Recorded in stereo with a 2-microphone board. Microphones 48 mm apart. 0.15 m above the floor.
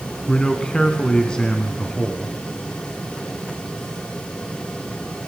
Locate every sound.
0.3 s a man speaking: 15° left (ahead or behind), 1.1 m